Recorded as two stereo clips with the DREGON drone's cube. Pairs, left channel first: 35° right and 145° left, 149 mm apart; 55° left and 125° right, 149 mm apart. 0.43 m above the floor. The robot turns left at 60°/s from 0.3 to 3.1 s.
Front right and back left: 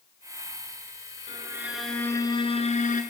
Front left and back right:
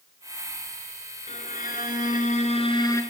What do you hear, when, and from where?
1.3 s a violin: 90° left, 2 m; by 3.0 s 15° right, 2 m